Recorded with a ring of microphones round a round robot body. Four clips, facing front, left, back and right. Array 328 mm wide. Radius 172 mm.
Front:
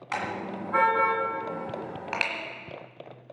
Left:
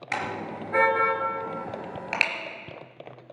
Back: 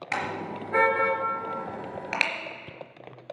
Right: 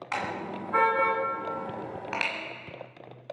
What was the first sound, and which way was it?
A car horn, 135° left.